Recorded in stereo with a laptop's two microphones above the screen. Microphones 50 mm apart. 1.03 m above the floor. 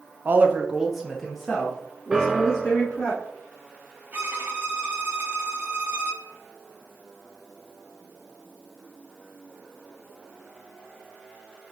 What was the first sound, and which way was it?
A woman speaking, 40° right (ahead or behind).